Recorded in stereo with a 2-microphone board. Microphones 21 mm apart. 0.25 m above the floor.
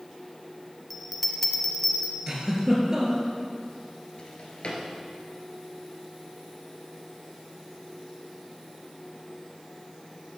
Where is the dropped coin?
No dropped coin in this recording.